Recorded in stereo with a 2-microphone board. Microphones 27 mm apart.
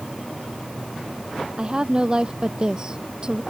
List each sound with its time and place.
1.6 s a woman speaking: 30° right (ahead or behind)